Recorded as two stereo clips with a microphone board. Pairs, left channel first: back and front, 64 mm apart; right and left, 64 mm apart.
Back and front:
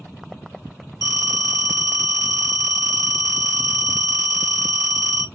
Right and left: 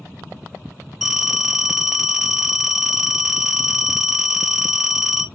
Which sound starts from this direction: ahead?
A phone ringing, at 1.0 s.